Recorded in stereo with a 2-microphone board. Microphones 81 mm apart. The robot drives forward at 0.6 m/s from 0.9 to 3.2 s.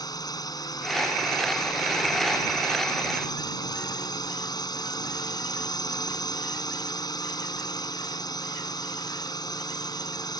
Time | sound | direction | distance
0.0 | a drone | 50° left (ahead or behind) | ?